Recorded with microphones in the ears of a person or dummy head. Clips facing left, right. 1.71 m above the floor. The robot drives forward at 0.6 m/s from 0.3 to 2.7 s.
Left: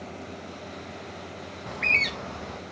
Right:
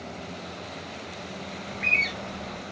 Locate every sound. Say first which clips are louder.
1.7 s a bird: even; 55° left (ahead or behind), 0.6 m; by 2.6 s 35° left (ahead or behind), 0.8 m